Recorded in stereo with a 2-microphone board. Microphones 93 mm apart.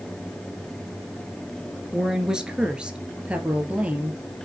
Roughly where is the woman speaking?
Centre.